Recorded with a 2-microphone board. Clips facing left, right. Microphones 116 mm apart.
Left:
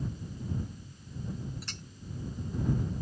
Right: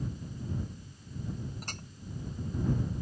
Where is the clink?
45° right (ahead or behind).